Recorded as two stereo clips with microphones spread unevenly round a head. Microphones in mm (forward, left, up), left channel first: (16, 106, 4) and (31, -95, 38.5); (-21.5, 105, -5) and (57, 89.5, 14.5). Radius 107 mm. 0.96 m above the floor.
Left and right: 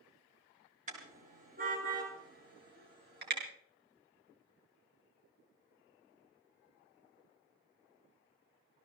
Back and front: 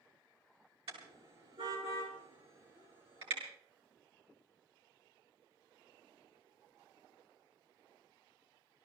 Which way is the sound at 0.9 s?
35° right.